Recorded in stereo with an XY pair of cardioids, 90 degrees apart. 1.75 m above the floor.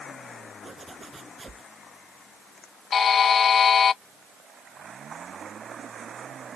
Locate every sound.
0.6 s a zipper: 30° right
2.9 s a buzzer: 60° left